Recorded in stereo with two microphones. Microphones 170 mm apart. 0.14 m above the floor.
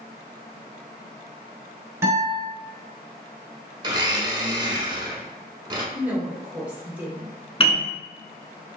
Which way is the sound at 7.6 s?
35° left (ahead or behind).